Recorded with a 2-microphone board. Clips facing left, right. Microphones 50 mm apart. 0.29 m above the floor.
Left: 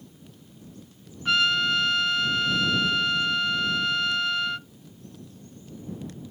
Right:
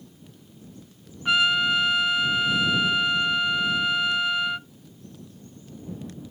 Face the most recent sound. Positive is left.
turn(degrees=-10)  # may be behind; listen again after turning